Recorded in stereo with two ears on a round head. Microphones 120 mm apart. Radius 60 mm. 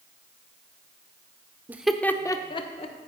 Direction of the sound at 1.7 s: 15° right (ahead or behind).